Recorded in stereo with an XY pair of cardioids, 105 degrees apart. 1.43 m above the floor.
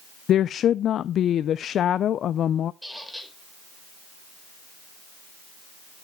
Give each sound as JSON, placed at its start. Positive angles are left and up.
{"t": 0.3, "sound": "a woman speaking", "azimuth_deg": 60, "distance_m": 0.5}
{"t": 2.8, "sound": "a squeak", "azimuth_deg": 0, "distance_m": 4.5}